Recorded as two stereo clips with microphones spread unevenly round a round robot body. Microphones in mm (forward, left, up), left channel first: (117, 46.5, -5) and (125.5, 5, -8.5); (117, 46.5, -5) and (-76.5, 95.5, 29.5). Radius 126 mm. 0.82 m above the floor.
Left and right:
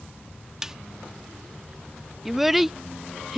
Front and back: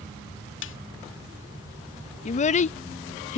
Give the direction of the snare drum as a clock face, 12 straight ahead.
12 o'clock.